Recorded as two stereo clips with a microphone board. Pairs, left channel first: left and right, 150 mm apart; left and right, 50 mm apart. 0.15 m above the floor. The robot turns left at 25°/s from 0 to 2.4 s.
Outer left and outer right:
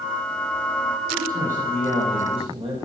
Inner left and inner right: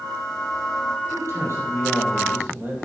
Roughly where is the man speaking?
Right.